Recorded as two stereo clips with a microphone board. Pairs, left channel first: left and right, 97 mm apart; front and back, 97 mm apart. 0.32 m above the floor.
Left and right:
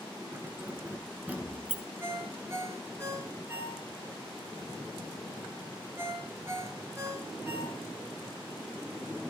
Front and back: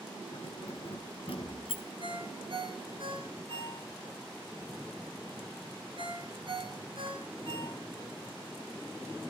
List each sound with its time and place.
0.3 s keys jangling: 20° right, 3 m; by 1.8 s 10° right, 2 m
2.0 s a ringtone: 150° right, 4.5 m